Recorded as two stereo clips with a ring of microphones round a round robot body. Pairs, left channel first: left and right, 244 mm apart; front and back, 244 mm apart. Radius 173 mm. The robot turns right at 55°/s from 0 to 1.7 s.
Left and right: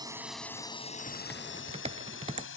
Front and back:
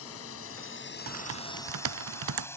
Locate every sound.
0.0 s a drone: 20° right; by 2.6 s 80° left
1.1 s typing on a keyboard: 160° left; by 2.5 s 165° right